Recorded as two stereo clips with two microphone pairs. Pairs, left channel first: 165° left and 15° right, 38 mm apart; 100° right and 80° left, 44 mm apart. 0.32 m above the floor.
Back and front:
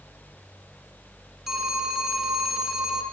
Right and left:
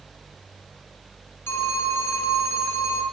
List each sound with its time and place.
1.5 s a phone ringing: 95° right, 1.7 m